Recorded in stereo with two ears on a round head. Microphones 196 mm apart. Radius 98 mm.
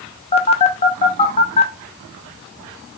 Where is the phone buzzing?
30° left (ahead or behind), 0.7 m.